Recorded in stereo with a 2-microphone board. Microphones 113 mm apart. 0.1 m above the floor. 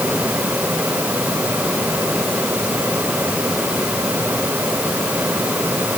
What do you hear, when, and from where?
Only background noise.